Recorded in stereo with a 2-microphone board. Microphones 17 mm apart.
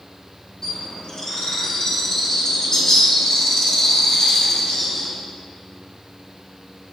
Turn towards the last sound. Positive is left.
turn(degrees=35)  # may be behind; listen again after turning